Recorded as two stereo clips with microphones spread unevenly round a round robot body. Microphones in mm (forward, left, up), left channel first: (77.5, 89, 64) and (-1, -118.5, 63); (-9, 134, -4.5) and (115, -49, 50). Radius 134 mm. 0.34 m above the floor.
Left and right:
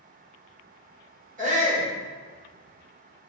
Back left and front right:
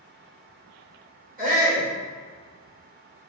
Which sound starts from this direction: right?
A shout, at 1.4 s.